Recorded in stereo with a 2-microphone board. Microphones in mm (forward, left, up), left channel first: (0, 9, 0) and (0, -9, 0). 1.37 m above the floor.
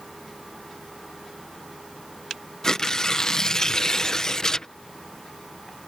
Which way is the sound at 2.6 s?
35° left (ahead or behind).